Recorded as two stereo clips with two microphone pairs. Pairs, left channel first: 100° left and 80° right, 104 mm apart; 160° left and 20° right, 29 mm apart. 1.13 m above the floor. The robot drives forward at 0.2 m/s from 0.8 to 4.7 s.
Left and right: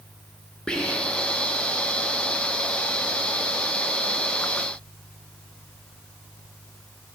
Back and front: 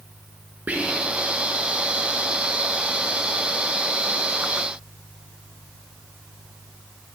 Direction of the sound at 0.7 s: 15° left.